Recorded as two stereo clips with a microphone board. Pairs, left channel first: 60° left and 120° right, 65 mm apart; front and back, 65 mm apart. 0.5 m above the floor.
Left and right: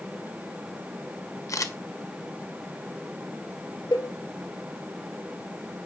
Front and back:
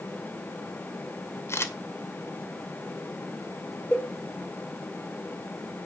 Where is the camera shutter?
40° left, 1.5 m.